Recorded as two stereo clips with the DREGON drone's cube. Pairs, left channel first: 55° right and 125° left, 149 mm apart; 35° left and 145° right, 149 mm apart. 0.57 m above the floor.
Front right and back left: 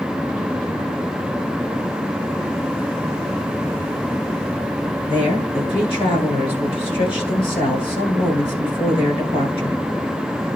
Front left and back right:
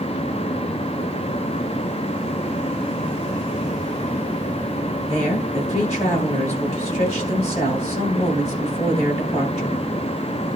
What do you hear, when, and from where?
5.1 s a woman speaking: 5° right, 9 m